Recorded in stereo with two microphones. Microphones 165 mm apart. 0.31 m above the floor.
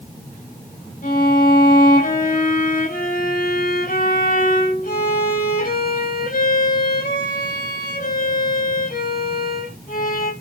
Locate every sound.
1.0 s a violin: 60° left (ahead or behind), 6.5 m